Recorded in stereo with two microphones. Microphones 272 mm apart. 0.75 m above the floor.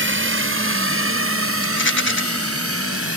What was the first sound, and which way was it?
A drone, 45° right (ahead or behind).